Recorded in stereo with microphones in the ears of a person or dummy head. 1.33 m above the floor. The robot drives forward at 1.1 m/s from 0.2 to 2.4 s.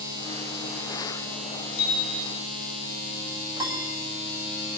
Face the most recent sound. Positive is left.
turn(degrees=-20)  # may be behind; listen again after turning